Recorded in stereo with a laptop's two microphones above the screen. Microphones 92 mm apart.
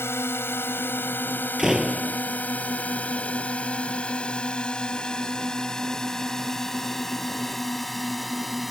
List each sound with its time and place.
0.0 s a drone: 25° left (ahead or behind); by 8.7 s centre (ahead or behind)
1.6 s a door slam: 5° right (ahead or behind)